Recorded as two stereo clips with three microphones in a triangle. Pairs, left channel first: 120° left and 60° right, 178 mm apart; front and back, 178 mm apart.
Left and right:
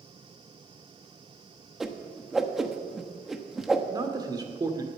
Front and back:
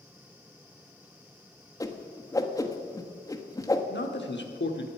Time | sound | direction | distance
1.8 | a whoosh | 25° left | 1.0 m
3.9 | a man speaking | 10° left | 1.4 m